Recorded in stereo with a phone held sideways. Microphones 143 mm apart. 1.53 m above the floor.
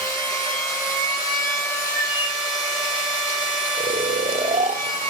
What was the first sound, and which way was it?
A machine running, 20° left (ahead or behind).